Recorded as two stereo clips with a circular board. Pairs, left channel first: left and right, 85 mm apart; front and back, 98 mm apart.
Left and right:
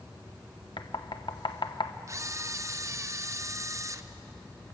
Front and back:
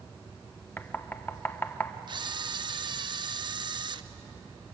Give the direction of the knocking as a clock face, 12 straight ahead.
10 o'clock.